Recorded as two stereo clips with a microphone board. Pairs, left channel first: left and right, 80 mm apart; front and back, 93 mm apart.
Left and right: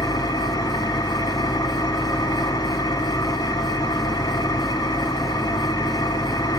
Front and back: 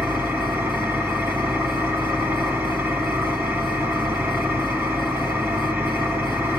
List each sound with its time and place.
0.0 s an engine running: 115° left, 2.5 m